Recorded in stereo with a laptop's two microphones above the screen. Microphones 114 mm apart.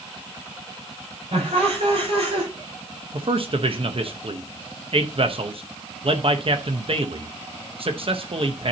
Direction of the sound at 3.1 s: 55° right (ahead or behind).